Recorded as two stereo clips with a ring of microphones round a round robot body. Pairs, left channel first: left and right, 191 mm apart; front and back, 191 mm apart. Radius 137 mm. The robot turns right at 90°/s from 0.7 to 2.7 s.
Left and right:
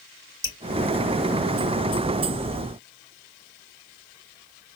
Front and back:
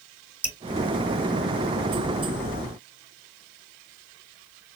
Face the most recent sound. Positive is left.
turn(degrees=-70)